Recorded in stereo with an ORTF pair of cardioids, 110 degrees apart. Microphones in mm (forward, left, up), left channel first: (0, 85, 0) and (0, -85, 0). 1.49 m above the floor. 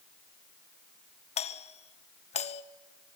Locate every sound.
1.4 s a doorbell: 40° left, 1.5 m